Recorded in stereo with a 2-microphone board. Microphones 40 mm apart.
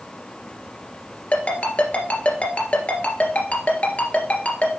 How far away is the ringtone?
About 2 m.